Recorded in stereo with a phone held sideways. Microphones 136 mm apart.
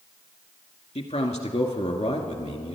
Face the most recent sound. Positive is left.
turn(degrees=55)  # may be behind; listen again after turning